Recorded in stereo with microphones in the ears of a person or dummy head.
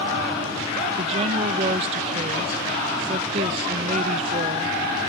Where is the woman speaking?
30° right (ahead or behind).